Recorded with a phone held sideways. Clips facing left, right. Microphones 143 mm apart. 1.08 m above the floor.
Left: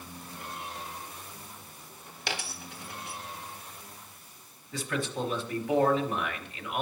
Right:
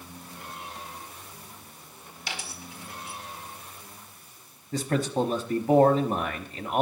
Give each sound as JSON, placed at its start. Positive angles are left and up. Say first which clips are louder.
{"t": 2.3, "sound": "a dropped coin", "louder": "left 2 dB", "side_deg": 65, "distance_m": 1.1}
{"t": 4.7, "sound": "a man speaking", "louder": "right 7 dB", "side_deg": -40, "distance_m": 1.0}